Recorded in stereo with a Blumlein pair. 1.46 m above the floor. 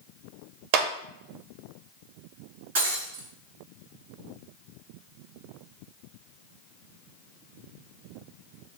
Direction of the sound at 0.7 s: 45° right.